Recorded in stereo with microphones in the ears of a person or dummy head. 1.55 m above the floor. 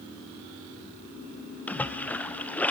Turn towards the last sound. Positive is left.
turn(degrees=10)  # may be behind; listen again after turning